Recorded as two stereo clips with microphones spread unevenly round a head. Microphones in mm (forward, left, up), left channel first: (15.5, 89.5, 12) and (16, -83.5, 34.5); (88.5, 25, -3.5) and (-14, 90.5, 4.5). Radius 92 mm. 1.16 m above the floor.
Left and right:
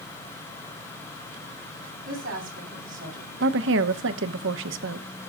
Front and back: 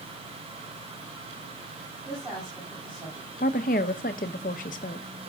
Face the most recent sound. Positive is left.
turn(degrees=-75)